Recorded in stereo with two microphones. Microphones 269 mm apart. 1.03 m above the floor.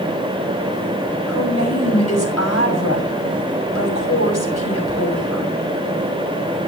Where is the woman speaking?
65° left (ahead or behind), 6 m.